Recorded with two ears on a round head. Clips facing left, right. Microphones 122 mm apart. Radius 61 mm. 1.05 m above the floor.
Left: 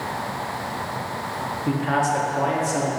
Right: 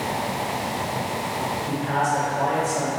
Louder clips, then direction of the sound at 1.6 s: Left 3 dB; 80° left.